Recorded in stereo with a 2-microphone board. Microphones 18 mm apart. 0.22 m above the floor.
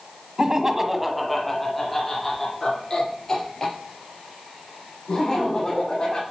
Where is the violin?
I don't hear a violin.